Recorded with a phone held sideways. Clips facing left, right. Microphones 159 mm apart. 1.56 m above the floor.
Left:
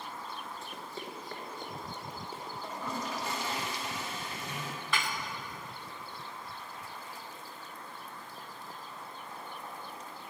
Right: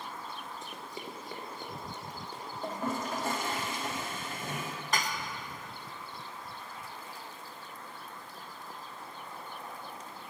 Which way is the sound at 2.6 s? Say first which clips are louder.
Right 4 dB; 50° right (ahead or behind).